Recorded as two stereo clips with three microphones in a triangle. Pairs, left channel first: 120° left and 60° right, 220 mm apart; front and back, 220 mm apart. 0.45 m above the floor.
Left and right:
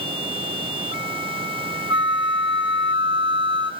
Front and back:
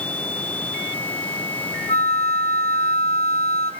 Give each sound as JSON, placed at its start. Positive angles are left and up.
{"t": 1.9, "sound": "a flute", "azimuth_deg": -15, "distance_m": 0.7}